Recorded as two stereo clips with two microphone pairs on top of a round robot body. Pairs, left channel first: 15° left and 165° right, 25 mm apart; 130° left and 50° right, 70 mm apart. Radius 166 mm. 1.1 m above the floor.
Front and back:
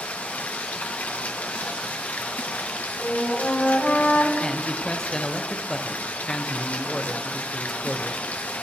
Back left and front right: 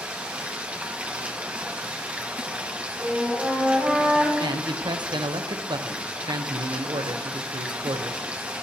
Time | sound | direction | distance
0.0 | running water | 25° left | 0.9 m
3.0 | a flute | 25° left | 2.5 m
4.4 | a man speaking | 50° right | 1.2 m